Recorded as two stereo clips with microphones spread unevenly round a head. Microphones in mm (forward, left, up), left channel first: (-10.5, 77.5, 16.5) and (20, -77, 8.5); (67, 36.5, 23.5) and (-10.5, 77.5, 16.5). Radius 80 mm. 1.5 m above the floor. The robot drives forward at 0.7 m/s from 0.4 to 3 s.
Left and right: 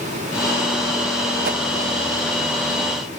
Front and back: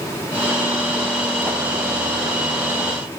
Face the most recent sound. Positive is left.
turn(degrees=-155)